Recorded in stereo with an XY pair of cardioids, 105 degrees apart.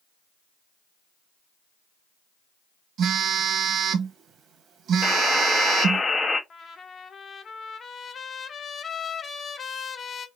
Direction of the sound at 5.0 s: 35° left.